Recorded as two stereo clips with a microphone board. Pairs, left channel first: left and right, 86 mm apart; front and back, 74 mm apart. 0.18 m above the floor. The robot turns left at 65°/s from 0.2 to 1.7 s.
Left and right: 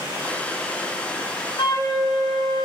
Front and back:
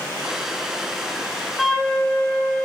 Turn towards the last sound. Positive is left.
turn(degrees=85)